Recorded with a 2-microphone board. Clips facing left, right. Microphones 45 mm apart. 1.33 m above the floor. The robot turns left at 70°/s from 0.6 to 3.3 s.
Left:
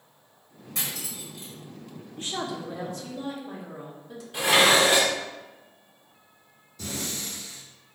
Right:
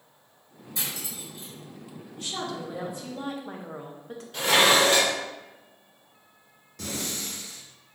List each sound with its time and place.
0.8 s cutlery clinking: 60° left (ahead or behind), 2.0 m
2.2 s a woman speaking: 35° left, 0.9 m; by 4.2 s 45° right, 0.9 m
4.3 s dishes clattering: 15° left (ahead or behind), 0.9 m
6.8 s breathing: 65° right (ahead or behind), 1.2 m